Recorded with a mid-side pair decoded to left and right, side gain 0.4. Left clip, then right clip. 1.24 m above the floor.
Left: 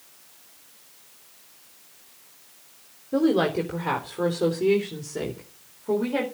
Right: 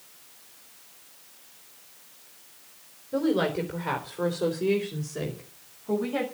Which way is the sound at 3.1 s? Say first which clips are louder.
Left 4 dB; 45° left.